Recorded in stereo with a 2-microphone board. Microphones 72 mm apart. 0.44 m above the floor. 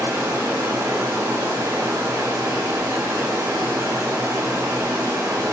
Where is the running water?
50° right (ahead or behind), 2.5 m.